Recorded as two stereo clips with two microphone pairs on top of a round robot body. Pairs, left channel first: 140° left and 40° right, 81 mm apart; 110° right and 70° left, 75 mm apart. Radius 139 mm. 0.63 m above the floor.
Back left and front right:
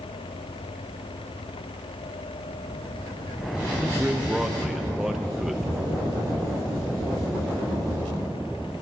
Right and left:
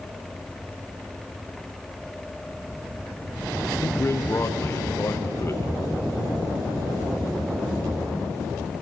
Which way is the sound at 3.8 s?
140° right.